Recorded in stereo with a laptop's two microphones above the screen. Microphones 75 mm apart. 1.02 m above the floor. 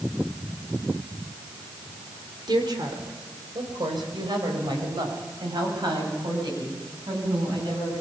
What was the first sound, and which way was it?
A woman speaking, 80° right.